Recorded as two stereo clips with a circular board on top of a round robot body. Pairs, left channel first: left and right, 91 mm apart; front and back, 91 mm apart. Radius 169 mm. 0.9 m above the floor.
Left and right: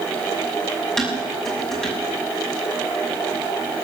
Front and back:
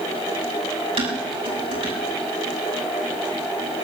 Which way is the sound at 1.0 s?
175° left.